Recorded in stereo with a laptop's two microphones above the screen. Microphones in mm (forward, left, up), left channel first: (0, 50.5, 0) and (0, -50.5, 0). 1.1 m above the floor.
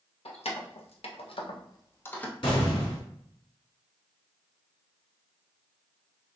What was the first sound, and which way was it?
Keys jangling, 80° left.